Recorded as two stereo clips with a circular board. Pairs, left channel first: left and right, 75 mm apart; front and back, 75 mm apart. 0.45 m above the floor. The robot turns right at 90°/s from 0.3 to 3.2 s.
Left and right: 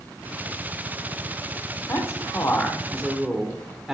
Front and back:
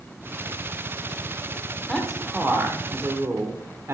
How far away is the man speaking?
About 1.5 m.